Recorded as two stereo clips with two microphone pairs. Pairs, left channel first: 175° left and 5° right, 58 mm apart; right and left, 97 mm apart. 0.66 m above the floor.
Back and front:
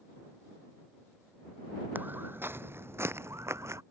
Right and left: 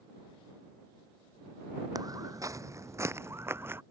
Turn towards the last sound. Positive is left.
turn(degrees=25)